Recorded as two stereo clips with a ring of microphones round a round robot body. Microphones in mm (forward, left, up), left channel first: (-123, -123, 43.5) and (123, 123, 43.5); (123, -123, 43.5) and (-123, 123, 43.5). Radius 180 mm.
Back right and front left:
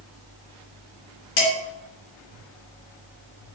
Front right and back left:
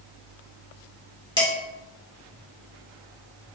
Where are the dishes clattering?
120° right, 1.8 m.